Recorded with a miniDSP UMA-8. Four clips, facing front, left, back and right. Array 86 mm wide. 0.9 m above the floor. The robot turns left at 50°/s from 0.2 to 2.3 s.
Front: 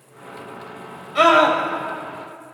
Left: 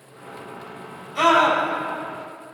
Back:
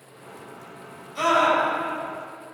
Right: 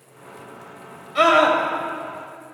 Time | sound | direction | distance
1.1 | a scream | 25° right | 5.5 m